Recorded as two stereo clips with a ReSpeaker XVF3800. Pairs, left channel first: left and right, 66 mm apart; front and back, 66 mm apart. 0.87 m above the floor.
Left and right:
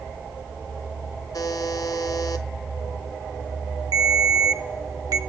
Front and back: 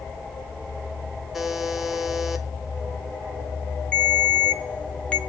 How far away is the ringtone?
About 1.2 m.